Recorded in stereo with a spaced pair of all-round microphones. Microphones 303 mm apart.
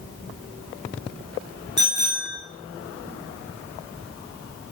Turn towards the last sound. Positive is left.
turn(degrees=-35)  # may be behind; listen again after turning